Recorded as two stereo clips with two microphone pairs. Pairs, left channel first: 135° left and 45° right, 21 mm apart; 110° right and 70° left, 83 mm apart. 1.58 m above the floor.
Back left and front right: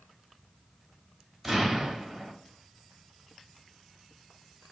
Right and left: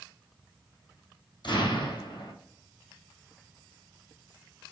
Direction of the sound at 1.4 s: 130° right.